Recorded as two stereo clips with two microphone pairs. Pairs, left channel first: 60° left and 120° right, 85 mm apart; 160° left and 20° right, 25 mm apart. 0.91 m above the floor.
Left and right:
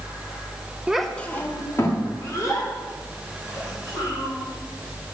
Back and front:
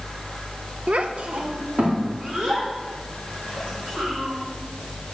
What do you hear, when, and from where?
0.9 s a child speaking: 40° right, 0.5 m; by 4.3 s 15° left, 4.5 m